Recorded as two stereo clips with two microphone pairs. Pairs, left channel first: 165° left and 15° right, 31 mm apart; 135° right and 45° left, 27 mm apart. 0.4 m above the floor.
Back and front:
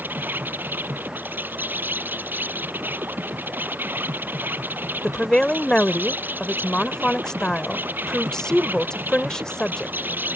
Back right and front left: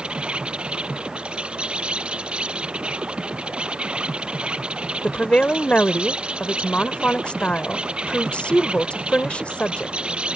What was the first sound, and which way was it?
An insect, 5° right.